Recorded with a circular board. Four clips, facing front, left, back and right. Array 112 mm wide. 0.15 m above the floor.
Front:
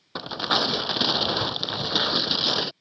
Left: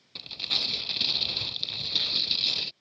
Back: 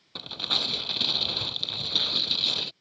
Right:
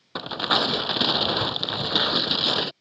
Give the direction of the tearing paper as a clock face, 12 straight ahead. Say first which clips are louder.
Right 18 dB, front 11 dB; 2 o'clock.